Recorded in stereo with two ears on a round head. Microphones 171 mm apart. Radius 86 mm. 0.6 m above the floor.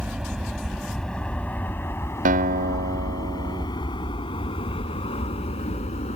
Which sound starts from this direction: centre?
An aircraft, at 0.0 s.